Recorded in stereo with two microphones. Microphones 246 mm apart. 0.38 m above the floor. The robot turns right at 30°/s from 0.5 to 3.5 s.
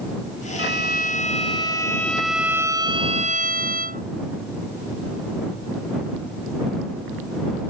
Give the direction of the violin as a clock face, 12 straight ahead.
8 o'clock.